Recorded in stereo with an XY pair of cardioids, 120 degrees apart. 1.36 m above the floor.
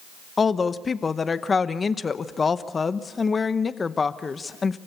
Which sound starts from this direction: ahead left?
A woman speaking, at 0.4 s.